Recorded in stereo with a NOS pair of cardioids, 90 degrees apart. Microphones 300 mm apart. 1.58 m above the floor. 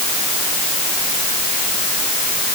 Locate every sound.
Only background noise.